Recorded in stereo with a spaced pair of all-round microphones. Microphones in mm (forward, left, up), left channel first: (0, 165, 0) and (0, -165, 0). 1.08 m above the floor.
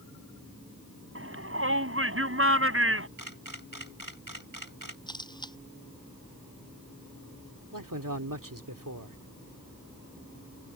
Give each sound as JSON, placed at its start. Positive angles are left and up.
{"t": 1.1, "sound": "a shout", "side_deg": -40}
{"t": 3.2, "sound": "a camera shutter", "side_deg": -80}
{"t": 5.1, "sound": "a camera shutter", "side_deg": 15}
{"t": 7.7, "sound": "a man speaking", "side_deg": -75}